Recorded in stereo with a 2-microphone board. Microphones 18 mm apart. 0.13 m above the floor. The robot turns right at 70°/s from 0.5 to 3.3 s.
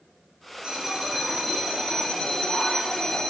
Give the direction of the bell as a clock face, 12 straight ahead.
3 o'clock.